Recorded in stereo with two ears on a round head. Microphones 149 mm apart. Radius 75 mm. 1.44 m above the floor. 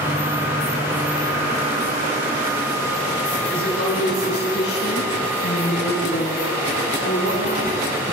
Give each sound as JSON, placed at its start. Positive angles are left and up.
{"t": 3.5, "sound": "a woman speaking", "side_deg": 65, "distance_m": 9.0}